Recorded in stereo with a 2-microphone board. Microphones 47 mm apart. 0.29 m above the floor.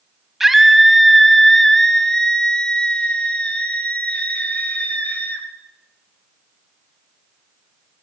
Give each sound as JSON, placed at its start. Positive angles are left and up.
{"t": 0.4, "sound": "a scream", "side_deg": -5, "distance_m": 2.5}